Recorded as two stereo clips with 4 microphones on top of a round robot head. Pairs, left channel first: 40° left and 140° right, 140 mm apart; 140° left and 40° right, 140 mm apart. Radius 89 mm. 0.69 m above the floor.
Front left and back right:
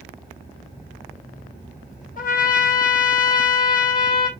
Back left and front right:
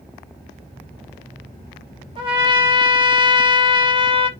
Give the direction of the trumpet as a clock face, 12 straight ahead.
12 o'clock.